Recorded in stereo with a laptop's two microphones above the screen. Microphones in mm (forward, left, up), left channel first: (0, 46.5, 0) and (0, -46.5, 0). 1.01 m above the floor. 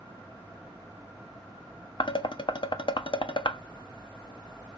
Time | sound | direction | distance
2.0 | dishes clattering | 60° left (ahead or behind) | 0.5 m